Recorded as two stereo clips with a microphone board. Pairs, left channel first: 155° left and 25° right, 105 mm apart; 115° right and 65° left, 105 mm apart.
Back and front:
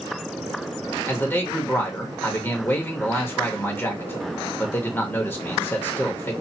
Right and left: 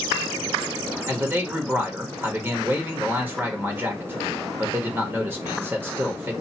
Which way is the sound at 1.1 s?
110° left.